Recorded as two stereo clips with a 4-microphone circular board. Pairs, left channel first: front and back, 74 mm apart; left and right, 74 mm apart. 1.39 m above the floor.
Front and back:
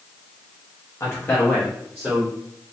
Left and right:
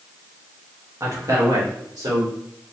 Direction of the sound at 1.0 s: 45° right.